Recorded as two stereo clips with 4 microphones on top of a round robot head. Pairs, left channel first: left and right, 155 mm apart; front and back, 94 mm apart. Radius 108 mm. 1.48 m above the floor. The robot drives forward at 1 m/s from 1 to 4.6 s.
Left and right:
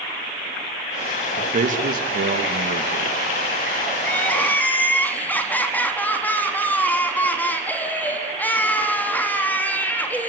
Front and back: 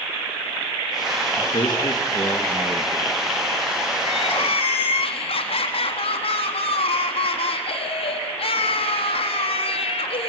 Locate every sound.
1.4 s a man speaking: 50° right, 2.5 m; by 3.2 s 90° right, 2 m
4.0 s crying: 10° left, 4.5 m